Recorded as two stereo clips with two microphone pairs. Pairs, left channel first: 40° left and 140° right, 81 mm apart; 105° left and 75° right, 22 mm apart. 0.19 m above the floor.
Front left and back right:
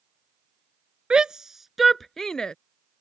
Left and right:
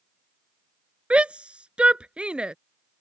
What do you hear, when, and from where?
1.1 s a shout: 65° right; by 2.5 s 40° right